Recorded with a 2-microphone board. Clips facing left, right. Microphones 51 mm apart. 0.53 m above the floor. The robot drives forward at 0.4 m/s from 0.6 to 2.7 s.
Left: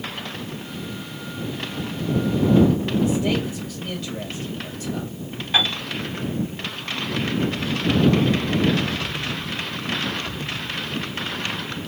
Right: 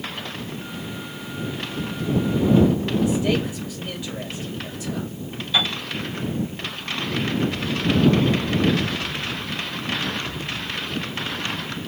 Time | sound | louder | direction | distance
3.0 | a man speaking | even | 5° right (ahead or behind) | 2 m
5.5 | a piano | left 1 dB | 40° left (ahead or behind) | 1.6 m